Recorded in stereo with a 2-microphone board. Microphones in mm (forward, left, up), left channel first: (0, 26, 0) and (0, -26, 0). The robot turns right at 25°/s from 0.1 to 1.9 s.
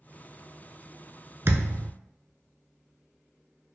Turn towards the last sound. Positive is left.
turn(degrees=-55)  # may be behind; listen again after turning